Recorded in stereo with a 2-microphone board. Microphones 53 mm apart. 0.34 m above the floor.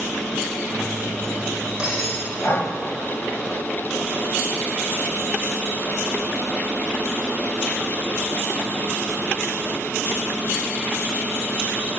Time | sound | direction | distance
0.7 | cutlery clinking | 15° right (ahead or behind) | 9.5 m
2.4 | breathing | 50° left (ahead or behind) | 1.8 m